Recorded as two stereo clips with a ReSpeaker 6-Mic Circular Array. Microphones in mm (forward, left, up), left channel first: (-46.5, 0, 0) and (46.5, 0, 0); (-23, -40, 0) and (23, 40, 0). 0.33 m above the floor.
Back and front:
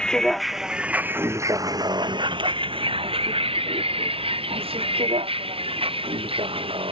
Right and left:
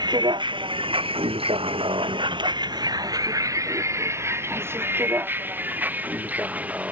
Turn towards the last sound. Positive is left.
turn(degrees=-15)